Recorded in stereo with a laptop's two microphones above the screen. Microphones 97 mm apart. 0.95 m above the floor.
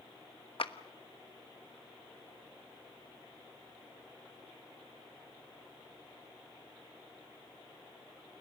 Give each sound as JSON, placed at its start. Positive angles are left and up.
{"t": 0.6, "sound": "a clap", "side_deg": 65, "distance_m": 1.2}